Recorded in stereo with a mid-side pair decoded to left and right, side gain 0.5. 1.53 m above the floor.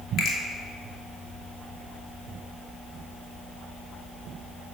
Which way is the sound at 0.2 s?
60° left.